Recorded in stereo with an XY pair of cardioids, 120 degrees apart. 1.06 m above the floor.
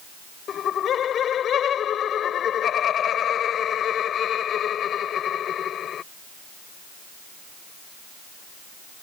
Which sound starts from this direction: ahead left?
Laughter, at 0.5 s.